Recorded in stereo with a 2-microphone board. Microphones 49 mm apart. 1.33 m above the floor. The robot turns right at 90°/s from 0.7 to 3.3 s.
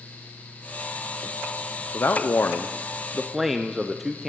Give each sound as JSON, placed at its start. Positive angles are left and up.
{"t": 1.9, "sound": "a man speaking", "azimuth_deg": 65, "distance_m": 0.6}